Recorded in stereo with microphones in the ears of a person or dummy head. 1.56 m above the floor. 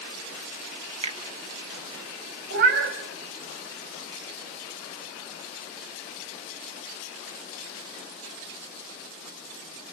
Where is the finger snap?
35° right (ahead or behind), 2.5 m.